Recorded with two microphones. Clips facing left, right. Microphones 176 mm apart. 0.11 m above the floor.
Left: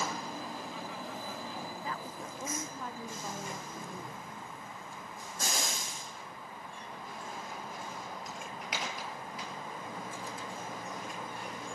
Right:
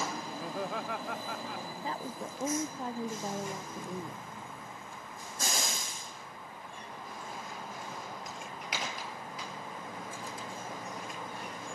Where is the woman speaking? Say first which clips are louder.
Right 3 dB; 30° right (ahead or behind).